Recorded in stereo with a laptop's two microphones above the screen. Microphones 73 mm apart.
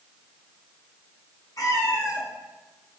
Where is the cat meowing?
55° left (ahead or behind), 0.6 m; by 3.0 s 60° left (ahead or behind), 1.5 m.